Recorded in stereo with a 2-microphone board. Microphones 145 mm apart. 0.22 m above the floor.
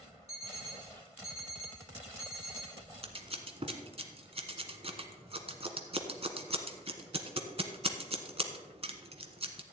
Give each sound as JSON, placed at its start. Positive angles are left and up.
{"t": 0.3, "sound": "an alarm clock", "side_deg": 50, "distance_m": 3.5}
{"t": 3.0, "sound": "scissors", "side_deg": -45, "distance_m": 1.1}